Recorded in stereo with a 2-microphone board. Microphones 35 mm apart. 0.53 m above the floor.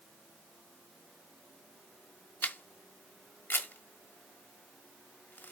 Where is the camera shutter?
75° left (ahead or behind), 1.2 m.